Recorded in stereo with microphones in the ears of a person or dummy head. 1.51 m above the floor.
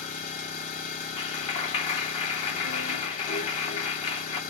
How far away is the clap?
About 1.1 m.